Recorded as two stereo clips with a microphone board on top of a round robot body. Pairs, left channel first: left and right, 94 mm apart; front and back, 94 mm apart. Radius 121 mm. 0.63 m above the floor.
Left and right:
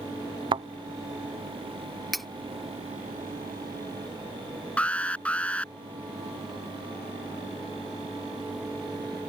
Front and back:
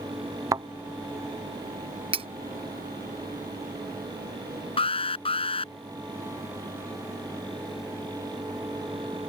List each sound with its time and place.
0.5 s a thud: 125° right
2.1 s cutlery clinking: straight behind
4.8 s an alarm: 15° left